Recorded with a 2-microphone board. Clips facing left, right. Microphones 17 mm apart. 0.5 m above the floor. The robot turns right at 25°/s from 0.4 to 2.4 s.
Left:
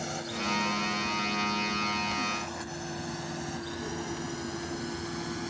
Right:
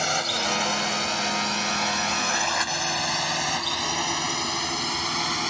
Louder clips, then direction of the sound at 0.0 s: Right 9 dB; 50° right (ahead or behind).